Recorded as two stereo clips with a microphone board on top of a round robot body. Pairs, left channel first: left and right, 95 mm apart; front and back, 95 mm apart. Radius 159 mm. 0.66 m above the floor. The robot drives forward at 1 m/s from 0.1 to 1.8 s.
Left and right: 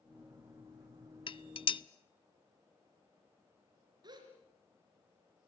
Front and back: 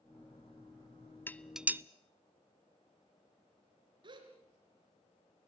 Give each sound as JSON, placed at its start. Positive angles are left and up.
{"t": 1.3, "sound": "dishes clattering", "azimuth_deg": 70, "distance_m": 0.8}
{"t": 4.0, "sound": "a gasp", "azimuth_deg": -140, "distance_m": 3.0}